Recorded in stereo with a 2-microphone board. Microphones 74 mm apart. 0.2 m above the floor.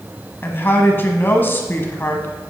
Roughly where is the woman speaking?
Left.